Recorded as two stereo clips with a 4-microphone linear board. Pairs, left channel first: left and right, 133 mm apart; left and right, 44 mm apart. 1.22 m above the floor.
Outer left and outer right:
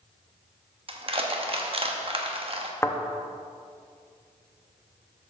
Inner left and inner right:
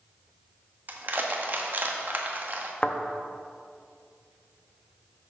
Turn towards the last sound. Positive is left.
turn(degrees=20)  # may be behind; listen again after turning